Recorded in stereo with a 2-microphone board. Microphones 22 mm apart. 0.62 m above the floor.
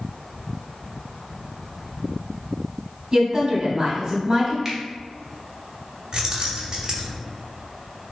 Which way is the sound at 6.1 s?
35° right (ahead or behind).